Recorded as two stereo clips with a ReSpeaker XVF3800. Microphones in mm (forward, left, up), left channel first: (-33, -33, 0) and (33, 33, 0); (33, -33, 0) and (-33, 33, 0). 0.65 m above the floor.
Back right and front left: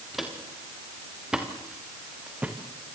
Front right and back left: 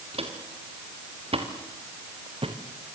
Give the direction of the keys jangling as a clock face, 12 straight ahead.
No keys jangling in this recording.